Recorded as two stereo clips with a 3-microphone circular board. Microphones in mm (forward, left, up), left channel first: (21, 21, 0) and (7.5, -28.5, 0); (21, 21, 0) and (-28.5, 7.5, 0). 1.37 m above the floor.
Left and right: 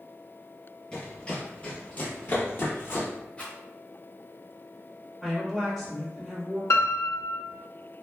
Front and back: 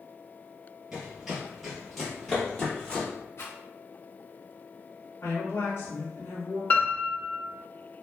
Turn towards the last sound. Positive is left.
turn(degrees=70)